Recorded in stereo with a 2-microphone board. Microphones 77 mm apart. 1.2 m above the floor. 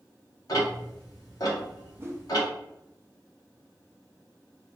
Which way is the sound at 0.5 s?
50° left (ahead or behind).